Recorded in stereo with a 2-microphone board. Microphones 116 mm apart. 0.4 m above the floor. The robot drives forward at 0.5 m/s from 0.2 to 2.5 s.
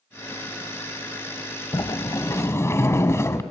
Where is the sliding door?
40° left (ahead or behind), 0.6 m; by 3.4 s 25° left (ahead or behind), 1.0 m.